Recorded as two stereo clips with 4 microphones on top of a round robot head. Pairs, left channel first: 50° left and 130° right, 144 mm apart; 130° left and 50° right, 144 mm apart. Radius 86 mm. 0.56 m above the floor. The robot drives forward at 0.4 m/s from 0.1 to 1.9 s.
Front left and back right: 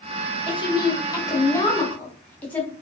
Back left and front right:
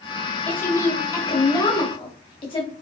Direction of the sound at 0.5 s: 65° left.